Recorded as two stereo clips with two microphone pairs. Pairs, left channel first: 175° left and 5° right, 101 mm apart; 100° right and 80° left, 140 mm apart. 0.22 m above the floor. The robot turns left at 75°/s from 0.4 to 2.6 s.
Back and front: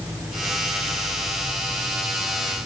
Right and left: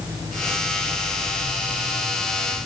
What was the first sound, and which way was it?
Only background noise.